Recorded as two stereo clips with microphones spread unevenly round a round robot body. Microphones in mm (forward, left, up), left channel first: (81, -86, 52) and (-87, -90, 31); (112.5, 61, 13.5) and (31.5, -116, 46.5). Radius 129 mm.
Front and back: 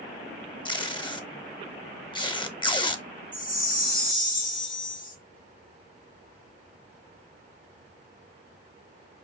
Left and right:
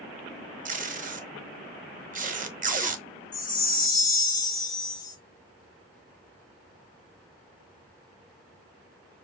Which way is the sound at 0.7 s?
65° right.